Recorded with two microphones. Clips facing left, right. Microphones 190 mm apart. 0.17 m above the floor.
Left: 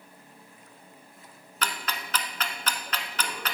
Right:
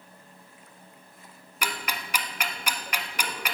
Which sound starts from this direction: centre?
Ticking, at 1.6 s.